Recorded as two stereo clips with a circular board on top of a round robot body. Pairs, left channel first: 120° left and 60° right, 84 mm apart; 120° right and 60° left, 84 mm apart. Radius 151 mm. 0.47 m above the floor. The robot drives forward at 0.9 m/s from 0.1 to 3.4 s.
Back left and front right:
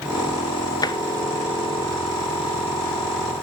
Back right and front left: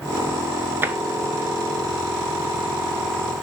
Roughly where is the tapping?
Behind left.